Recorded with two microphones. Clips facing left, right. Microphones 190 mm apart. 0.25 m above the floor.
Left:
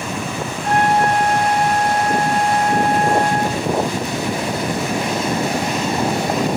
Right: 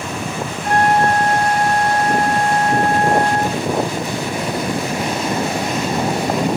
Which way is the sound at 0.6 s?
35° left (ahead or behind).